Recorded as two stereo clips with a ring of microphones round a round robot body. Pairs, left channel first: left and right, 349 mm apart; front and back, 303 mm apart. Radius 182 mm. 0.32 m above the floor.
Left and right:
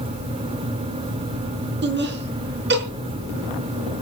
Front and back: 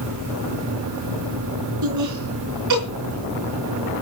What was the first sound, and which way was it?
Laughter, 150° right.